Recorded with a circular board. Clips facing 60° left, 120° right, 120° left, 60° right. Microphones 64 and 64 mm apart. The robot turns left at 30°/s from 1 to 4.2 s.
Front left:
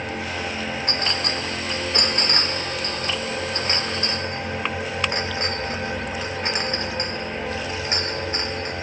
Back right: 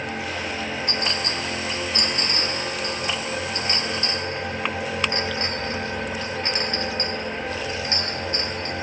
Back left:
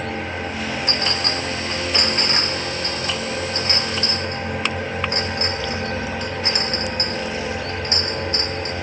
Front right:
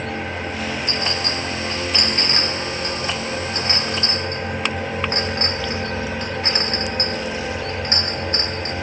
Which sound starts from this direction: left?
A clink, at 0.9 s.